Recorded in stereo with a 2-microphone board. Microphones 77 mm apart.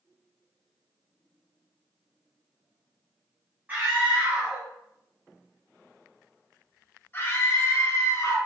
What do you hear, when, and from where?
3.7 s a scream: 25° right (ahead or behind), 2 m; by 8.4 s 50° left (ahead or behind), 1.7 m